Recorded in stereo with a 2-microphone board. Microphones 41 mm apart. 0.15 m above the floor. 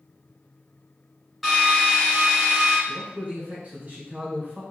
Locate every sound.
1.4 s a drill: 5° right (ahead or behind), 1.9 m
2.9 s a man speaking: 35° right (ahead or behind), 1.9 m